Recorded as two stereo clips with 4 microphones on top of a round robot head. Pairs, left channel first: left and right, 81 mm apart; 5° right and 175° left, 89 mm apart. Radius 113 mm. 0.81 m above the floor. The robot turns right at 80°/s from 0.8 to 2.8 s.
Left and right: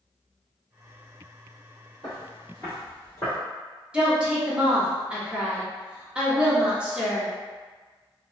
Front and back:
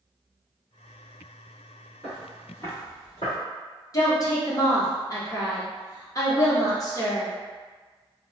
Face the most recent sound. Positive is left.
turn(degrees=-20)